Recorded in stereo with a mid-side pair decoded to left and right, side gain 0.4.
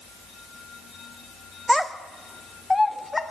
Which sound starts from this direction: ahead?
A child speaking, at 1.7 s.